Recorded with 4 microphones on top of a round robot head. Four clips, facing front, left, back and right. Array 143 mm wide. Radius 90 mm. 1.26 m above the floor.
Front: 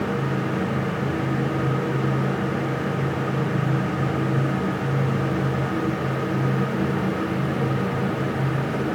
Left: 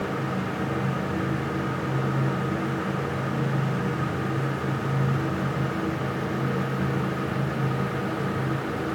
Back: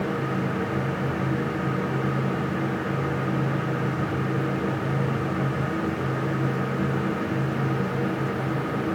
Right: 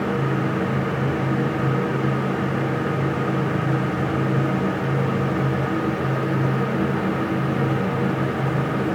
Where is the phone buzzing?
I don't hear a phone buzzing.